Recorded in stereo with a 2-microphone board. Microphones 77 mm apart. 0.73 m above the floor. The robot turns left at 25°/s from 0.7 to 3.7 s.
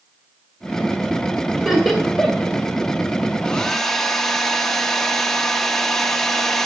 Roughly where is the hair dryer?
Centre.